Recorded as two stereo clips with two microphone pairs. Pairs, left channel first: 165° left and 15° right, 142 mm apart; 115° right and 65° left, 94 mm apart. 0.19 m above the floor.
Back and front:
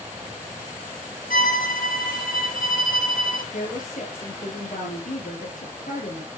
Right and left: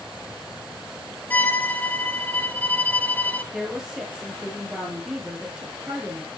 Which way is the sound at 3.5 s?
145° left.